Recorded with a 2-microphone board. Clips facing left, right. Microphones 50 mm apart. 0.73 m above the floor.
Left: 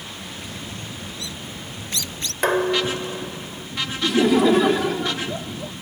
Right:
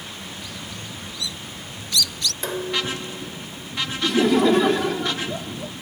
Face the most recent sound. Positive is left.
turn(degrees=5)  # may be behind; listen again after turning